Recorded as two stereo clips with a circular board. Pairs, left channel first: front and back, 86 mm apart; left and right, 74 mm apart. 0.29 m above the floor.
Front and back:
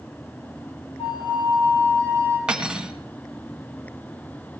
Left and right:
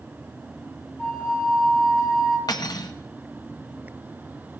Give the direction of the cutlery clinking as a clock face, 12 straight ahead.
9 o'clock.